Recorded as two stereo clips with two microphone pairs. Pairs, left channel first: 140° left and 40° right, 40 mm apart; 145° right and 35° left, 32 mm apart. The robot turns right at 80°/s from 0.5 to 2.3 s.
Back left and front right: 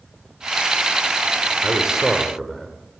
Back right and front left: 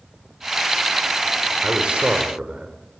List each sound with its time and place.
1.6 s a man speaking: 5° right, 1.4 m; by 2.8 s 50° left, 1.4 m